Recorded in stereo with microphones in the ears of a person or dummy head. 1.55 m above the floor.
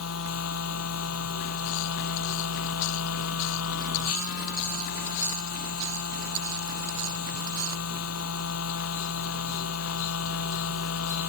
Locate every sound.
0.0 s a machine running: 85° left